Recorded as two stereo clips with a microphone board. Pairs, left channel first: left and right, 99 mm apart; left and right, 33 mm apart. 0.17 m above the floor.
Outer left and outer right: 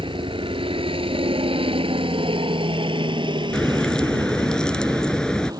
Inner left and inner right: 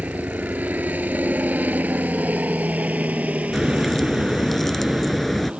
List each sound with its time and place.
0.0 s a helicopter: 60° right (ahead or behind); by 5.6 s 40° right (ahead or behind)
3.5 s a crack: 10° left (ahead or behind)